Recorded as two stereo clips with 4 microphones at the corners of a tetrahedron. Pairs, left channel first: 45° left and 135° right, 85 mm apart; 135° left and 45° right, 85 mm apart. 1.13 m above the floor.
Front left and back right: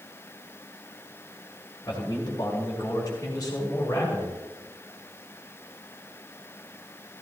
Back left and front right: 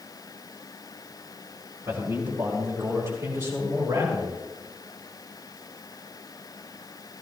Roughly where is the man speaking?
Ahead.